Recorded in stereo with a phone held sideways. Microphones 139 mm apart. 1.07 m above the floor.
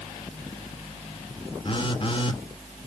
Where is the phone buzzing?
40° left (ahead or behind), 1.4 m.